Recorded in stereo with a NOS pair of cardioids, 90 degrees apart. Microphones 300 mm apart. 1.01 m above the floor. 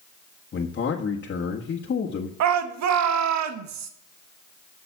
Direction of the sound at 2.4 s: 70° right.